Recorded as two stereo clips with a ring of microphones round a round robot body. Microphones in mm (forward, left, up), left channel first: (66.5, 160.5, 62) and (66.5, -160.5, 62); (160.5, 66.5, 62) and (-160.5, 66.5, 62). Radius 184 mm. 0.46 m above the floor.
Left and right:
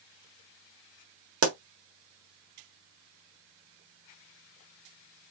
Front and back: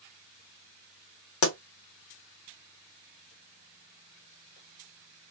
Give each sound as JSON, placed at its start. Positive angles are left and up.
{"t": 1.4, "sound": "a pop", "azimuth_deg": -40, "distance_m": 1.2}